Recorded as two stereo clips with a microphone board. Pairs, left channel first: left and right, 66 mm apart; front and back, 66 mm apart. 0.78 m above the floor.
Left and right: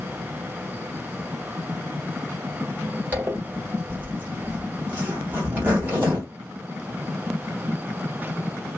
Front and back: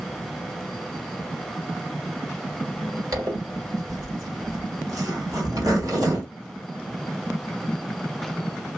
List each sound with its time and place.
3.1 s a zipper: 150° right, 1.5 m